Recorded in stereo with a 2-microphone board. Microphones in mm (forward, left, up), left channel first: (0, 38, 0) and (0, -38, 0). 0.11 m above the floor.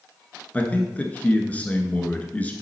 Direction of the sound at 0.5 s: 20° left (ahead or behind).